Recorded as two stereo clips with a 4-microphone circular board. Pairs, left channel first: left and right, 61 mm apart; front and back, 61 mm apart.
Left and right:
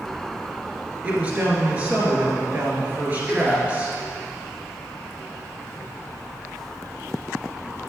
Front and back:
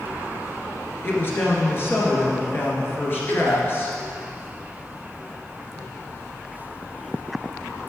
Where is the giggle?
165° left, 1.7 m.